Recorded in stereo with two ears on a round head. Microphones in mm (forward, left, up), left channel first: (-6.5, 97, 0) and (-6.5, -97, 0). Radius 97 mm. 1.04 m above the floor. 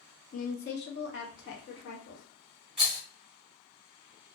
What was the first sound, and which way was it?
A woman speaking, 40° left (ahead or behind).